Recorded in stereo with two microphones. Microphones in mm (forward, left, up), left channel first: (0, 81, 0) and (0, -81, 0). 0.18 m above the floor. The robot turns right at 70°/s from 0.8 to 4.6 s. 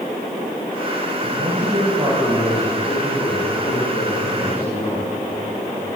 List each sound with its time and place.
1.2 s a man speaking: 85° right, 9.5 m; by 5.9 s 150° left, 9.5 m